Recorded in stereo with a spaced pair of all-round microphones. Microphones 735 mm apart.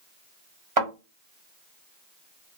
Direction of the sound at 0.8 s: 50° right (ahead or behind).